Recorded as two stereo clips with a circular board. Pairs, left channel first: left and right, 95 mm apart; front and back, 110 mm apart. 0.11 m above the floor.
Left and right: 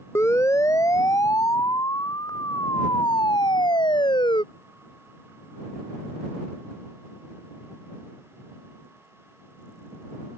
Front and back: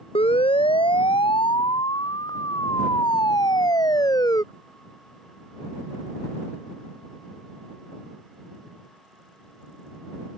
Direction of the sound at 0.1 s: 30° left.